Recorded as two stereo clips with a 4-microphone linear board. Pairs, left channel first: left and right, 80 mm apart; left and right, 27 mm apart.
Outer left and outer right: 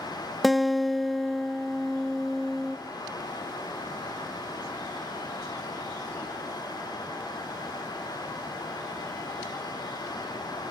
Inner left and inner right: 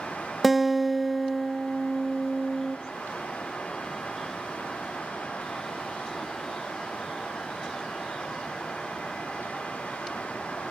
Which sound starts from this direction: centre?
A guitar, at 0.4 s.